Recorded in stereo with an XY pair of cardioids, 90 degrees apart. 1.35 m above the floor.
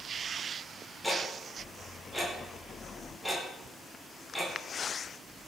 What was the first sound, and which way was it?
Ticking, 5° left.